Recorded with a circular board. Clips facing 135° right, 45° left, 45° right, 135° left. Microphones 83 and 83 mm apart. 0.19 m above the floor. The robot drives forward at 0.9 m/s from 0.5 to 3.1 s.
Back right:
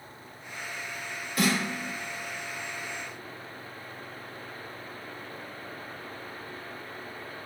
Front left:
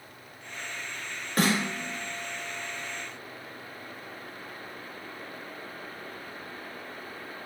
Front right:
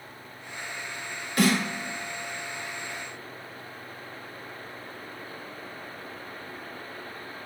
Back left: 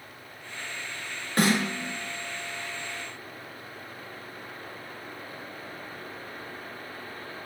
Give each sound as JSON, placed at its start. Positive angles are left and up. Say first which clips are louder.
{"t": 1.4, "sound": "a snare drum", "louder": "front left 1 dB, even", "azimuth_deg": 85, "distance_m": 4.5}